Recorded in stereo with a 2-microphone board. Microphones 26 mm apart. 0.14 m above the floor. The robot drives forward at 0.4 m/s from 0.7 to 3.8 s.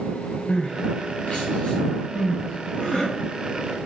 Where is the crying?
55° left (ahead or behind), 2.5 m; by 3.1 s 50° left (ahead or behind), 2.5 m.